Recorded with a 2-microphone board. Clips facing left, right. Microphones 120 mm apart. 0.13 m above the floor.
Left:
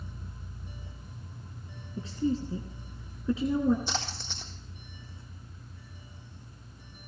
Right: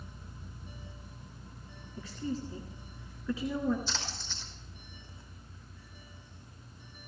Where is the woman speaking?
25° left (ahead or behind), 1.7 m.